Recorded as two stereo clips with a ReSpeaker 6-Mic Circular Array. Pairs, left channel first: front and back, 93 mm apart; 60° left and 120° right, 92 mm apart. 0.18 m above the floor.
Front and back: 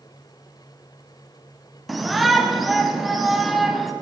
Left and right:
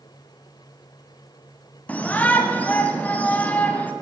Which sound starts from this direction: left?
A shout, at 1.9 s.